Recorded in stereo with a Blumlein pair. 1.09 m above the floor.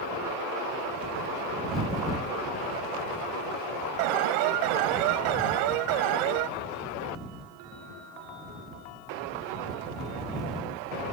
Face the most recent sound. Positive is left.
turn(degrees=-45)